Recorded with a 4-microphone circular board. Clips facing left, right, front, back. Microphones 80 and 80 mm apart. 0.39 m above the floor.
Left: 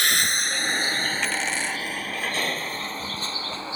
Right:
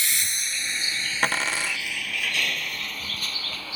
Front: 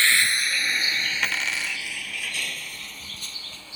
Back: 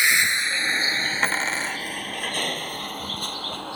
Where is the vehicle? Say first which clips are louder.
Left 7 dB, back 1 dB; 105° left; by 3.8 s 150° left.